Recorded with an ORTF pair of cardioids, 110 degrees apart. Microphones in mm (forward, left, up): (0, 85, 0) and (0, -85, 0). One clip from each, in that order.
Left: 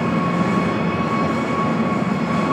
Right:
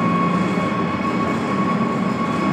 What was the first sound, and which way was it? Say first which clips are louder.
An engine running: right 1 dB; 55° right.